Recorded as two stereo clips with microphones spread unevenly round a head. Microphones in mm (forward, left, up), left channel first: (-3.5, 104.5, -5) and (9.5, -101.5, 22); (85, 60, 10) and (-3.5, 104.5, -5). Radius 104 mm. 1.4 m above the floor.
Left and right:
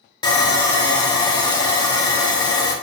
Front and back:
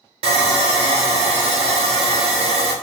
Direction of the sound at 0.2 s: 160° left.